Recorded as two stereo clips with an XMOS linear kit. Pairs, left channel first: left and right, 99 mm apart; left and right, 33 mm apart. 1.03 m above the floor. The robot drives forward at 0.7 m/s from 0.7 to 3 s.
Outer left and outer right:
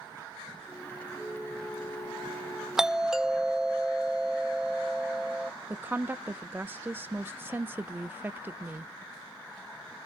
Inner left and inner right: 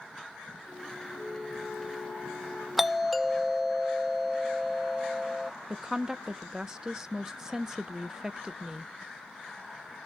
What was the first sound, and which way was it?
A flute, 35° left (ahead or behind).